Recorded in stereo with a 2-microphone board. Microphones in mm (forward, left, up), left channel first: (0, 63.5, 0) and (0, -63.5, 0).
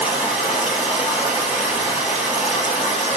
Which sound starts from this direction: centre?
Running water, at 0.0 s.